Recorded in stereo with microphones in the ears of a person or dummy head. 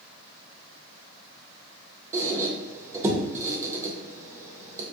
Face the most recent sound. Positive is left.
turn(degrees=-15)  # may be behind; listen again after turning